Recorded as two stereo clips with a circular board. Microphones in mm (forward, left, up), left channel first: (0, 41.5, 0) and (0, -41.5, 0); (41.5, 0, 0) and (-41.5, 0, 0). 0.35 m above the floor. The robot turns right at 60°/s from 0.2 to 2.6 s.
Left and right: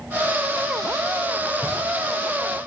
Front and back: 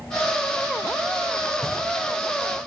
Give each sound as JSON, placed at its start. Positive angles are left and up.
{"t": 1.6, "sound": "knocking", "azimuth_deg": 150, "distance_m": 3.0}